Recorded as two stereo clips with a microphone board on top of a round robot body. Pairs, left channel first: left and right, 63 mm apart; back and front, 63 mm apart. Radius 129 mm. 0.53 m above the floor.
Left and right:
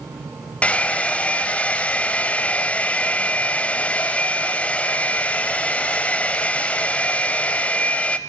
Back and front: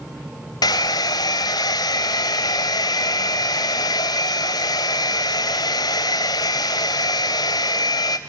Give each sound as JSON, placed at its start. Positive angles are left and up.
{"t": 0.6, "sound": "a hair dryer", "azimuth_deg": 160, "distance_m": 0.6}